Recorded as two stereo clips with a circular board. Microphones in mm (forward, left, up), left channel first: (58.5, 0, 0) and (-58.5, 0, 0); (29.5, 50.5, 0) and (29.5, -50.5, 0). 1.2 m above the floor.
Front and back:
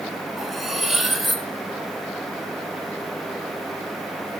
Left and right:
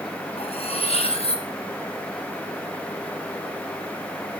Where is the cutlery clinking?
90° left, 0.9 m.